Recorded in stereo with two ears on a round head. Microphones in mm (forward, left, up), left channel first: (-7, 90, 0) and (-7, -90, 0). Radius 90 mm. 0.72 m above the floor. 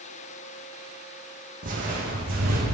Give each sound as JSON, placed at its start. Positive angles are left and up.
{"t": 1.6, "sound": "footsteps", "side_deg": -45, "distance_m": 1.8}